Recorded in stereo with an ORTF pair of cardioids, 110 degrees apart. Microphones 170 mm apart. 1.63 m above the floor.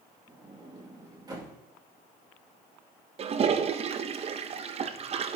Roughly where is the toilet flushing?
Ahead right.